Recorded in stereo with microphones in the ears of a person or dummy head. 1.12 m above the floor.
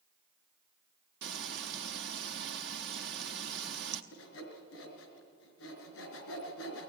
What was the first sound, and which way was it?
Frying, 65° right (ahead or behind).